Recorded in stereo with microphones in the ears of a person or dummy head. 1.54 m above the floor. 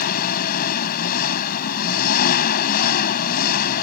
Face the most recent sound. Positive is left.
turn(degrees=50)  # may be behind; listen again after turning